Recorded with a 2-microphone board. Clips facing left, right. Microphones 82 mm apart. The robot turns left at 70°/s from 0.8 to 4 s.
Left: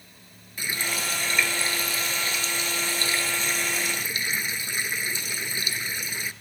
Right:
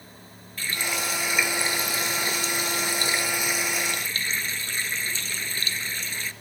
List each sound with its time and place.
0.6 s a running tap: 25° left, 1.0 m; by 6.3 s 160° left, 1.0 m